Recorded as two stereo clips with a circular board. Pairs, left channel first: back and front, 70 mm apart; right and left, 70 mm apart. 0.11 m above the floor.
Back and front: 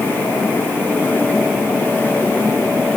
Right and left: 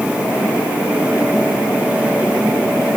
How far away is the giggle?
I don't hear a giggle.